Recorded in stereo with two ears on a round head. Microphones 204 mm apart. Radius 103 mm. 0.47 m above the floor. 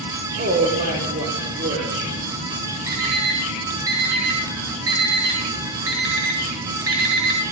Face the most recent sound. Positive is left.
turn(degrees=-70)  # may be behind; listen again after turning